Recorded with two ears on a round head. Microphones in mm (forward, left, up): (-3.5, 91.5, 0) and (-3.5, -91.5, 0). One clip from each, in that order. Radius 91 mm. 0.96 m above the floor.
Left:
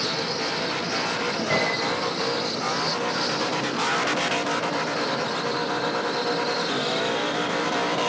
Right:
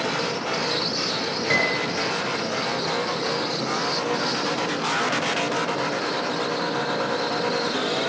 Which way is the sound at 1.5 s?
40° right (ahead or behind).